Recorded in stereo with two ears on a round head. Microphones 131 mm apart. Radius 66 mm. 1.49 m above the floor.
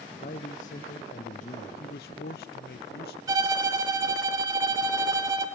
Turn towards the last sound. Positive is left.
turn(degrees=-25)  # may be behind; listen again after turning